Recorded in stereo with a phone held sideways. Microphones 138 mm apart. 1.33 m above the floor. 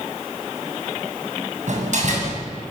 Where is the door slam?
60° right (ahead or behind), 7.5 m.